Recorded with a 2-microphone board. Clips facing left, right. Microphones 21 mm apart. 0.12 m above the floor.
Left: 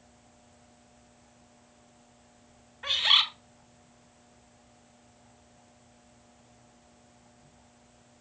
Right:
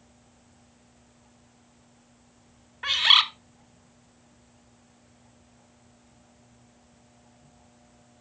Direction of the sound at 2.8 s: 25° right (ahead or behind).